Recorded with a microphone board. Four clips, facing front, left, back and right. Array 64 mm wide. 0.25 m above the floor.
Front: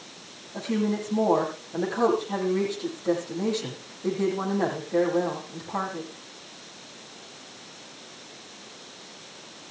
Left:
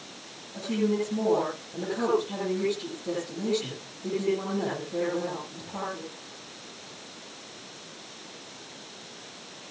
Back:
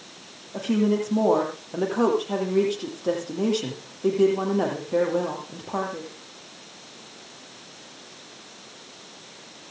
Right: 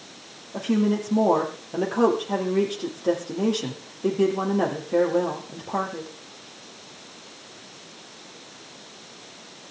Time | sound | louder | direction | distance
0.5 | a woman speaking | right 4 dB, back 4 dB | 130° right | 8 m